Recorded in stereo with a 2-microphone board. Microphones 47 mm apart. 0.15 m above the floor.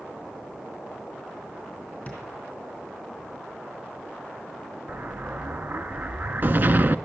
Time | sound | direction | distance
2.1 | tapping | 30° left (ahead or behind) | 3.5 m
4.9 | an explosion | 45° right (ahead or behind) | 0.5 m